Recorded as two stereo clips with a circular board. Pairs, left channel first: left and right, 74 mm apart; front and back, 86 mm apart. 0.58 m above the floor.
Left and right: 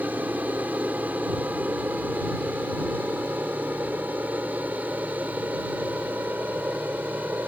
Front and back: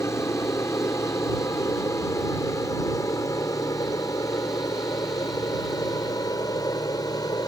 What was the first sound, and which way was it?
An aircraft, 35° right.